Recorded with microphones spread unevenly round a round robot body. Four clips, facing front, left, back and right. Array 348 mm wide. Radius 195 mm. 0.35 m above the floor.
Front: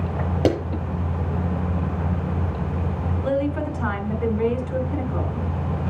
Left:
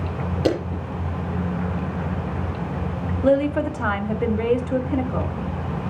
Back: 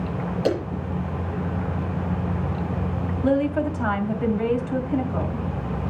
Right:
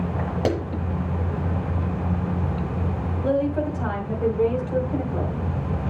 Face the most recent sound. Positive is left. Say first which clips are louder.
# left 4 dB, back 3 dB
turn(degrees=80)